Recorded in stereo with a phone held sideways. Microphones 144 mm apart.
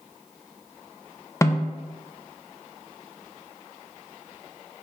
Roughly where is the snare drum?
Left.